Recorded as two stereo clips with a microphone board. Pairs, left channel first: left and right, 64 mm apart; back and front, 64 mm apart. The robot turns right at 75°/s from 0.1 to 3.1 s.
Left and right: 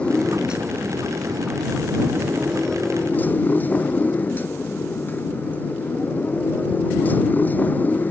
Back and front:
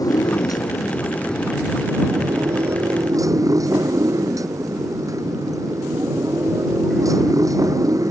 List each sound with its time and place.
0.0 s a motorcycle: 165° left; by 8.1 s 30° left